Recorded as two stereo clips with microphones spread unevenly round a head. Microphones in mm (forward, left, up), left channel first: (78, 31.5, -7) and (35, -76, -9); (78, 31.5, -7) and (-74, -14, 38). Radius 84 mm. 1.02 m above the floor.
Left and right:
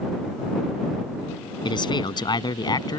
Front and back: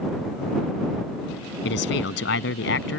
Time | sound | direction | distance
1.6 | a man speaking | 20° left | ?